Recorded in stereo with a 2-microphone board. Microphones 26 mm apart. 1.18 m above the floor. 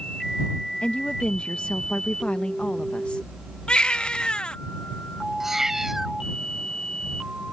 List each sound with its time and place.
0.8 s a woman speaking: 60° left (ahead or behind)
3.7 s a baby crying: 45° left (ahead or behind)
5.4 s a cat meowing: 15° right (ahead or behind)